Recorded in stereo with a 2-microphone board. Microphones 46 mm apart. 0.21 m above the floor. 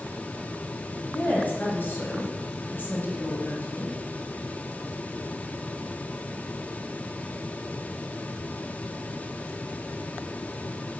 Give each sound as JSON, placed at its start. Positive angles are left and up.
{"t": 1.1, "sound": "a woman speaking", "side_deg": 45, "distance_m": 2.5}